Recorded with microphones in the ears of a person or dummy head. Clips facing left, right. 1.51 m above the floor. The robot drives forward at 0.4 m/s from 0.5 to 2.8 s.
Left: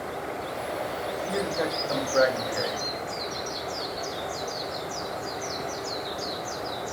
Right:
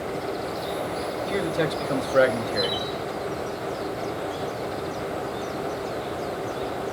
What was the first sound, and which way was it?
A man speaking, 30° right (ahead or behind).